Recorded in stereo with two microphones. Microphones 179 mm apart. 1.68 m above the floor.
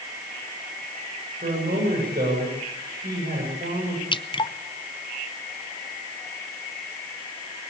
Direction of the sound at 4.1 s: 30° left (ahead or behind).